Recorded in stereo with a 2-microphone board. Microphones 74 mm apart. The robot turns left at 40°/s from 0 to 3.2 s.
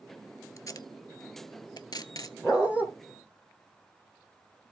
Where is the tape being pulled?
45° left (ahead or behind), 0.8 m; by 2.3 s 55° left (ahead or behind), 0.8 m.